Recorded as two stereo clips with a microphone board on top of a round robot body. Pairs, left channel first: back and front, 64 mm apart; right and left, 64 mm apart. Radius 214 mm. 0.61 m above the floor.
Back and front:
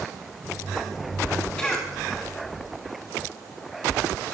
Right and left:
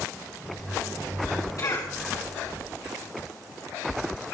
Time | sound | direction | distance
1.6 | a cough | 105° right | 3 m